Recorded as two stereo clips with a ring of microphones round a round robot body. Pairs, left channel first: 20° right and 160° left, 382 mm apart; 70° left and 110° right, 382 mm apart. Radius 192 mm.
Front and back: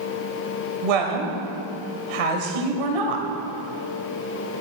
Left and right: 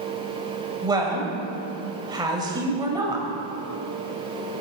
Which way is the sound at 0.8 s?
170° left.